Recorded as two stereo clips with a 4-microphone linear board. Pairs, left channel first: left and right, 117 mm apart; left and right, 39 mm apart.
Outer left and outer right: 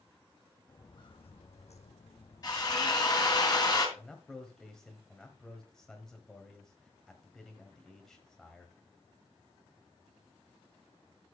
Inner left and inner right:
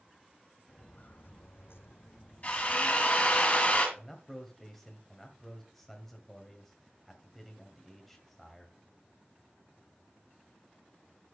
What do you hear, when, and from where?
0.7 s footsteps: 35° left (ahead or behind), 1.4 m; by 3.4 s 45° left (ahead or behind), 2.5 m
2.4 s a drill: 35° left (ahead or behind), 2.5 m
4.0 s a man speaking: 5° left (ahead or behind), 1.8 m